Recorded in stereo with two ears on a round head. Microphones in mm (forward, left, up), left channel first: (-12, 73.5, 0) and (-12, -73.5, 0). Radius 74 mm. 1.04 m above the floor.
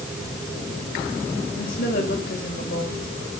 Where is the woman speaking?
60° left (ahead or behind), 5 m.